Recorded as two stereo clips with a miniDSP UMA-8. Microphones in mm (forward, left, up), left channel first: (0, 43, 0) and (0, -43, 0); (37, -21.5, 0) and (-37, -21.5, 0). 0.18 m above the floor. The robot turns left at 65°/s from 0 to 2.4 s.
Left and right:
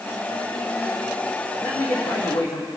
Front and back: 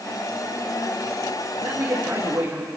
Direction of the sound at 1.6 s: 160° left.